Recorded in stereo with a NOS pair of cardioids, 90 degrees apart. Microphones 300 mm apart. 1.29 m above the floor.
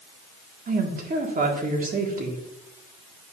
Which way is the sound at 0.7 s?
30° right.